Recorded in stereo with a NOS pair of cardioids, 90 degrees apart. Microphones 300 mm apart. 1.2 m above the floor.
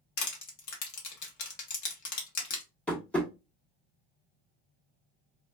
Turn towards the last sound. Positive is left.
turn(degrees=5)